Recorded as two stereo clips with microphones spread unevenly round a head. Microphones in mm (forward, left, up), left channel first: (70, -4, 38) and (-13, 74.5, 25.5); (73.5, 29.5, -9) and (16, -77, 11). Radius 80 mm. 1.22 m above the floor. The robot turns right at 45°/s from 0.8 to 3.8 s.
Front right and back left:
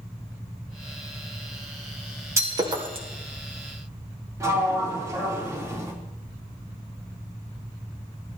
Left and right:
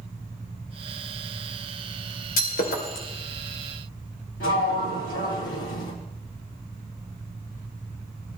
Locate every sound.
2.4 s breaking glass: 70° left, 3 m; by 3.1 s 100° left, 3 m
4.4 s a sliding door: 75° left, 4 m